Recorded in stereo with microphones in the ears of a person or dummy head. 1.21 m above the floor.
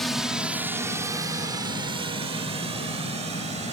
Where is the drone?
5° left (ahead or behind); by 3.7 s 35° right (ahead or behind).